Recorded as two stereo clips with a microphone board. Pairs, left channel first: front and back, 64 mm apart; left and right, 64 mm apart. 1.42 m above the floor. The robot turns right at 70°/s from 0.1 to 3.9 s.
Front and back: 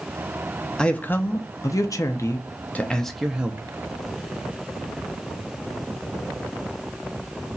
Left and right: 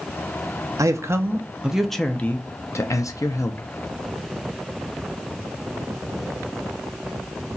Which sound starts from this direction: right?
A man speaking, at 0.8 s.